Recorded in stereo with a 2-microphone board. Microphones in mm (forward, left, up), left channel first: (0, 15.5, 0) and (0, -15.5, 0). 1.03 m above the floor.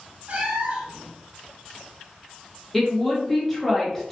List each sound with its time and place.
0.3 s a cat meowing: 55° right (ahead or behind), 1.0 m
2.7 s a woman speaking: 5° left (ahead or behind), 1.1 m